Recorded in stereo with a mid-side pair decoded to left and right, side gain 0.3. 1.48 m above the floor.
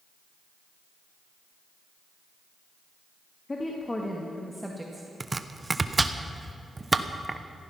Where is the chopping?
30° right, 1.0 m.